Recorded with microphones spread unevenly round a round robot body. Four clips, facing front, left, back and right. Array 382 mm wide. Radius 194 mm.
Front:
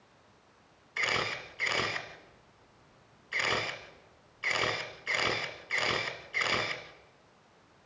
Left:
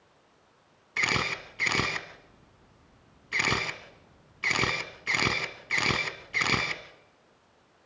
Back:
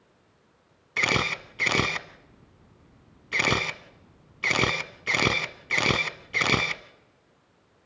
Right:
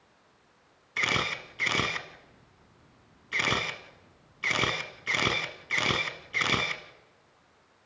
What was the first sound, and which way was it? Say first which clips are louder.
A camera shutter: even, back 6 dB; straight behind.